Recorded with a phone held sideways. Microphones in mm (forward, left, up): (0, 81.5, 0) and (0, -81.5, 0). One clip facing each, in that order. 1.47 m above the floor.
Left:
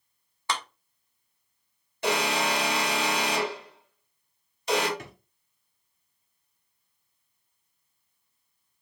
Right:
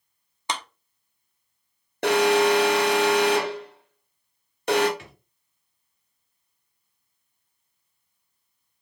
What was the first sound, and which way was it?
A clap, 20° right (ahead or behind).